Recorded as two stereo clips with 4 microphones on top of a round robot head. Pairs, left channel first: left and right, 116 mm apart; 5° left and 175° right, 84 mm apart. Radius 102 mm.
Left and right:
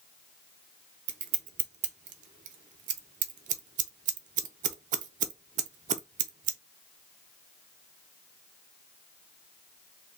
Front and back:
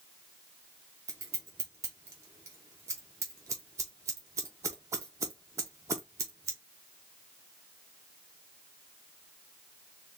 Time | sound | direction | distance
1.1 | scissors | 110° right | 0.5 m